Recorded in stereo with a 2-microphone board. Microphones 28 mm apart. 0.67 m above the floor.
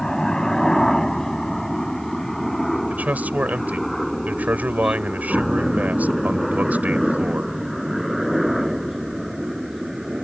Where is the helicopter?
20° left (ahead or behind); by 10.2 s 10° right (ahead or behind).